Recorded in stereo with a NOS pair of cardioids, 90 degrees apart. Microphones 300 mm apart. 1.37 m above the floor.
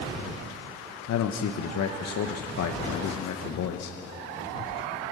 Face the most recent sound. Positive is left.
turn(degrees=60)